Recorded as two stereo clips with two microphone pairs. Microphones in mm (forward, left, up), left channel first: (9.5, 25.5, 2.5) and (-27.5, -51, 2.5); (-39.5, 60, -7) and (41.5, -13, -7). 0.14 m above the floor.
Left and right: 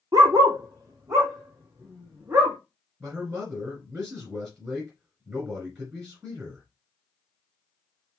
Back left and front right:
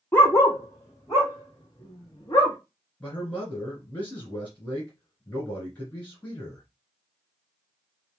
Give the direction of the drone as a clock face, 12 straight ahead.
No drone in this recording.